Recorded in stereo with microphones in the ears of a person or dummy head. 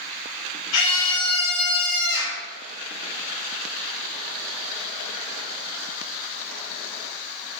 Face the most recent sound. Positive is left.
turn(degrees=65)  # may be behind; listen again after turning